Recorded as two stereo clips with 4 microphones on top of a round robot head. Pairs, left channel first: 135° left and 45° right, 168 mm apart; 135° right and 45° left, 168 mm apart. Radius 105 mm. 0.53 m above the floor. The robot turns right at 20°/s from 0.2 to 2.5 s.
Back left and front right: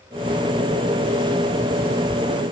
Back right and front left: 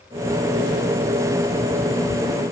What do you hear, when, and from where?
Only background noise.